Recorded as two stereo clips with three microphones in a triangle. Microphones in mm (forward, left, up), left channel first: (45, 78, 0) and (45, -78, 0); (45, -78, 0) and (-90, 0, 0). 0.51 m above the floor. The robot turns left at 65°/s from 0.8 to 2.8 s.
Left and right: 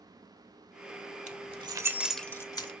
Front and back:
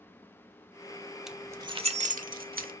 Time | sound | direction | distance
1.3 | keys jangling | 125° right | 1.0 m